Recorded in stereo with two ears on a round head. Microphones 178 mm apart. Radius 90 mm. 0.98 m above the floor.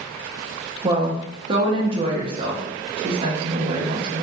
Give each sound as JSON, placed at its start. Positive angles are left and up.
{"t": 0.8, "sound": "a woman speaking", "side_deg": -25, "distance_m": 0.6}